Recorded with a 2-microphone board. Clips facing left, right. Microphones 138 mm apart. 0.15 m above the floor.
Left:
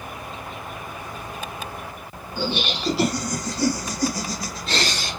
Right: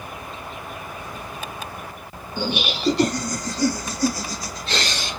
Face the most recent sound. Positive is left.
turn(degrees=50)  # may be behind; listen again after turning